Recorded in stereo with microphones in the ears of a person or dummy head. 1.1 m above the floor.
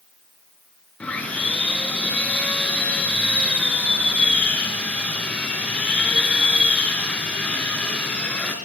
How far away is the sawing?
About 4 m.